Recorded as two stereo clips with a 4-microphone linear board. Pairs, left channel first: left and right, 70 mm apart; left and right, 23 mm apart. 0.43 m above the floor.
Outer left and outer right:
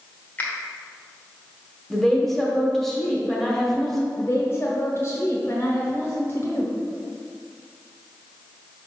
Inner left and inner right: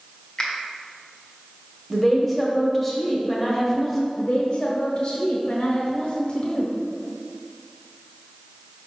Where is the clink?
I don't hear a clink.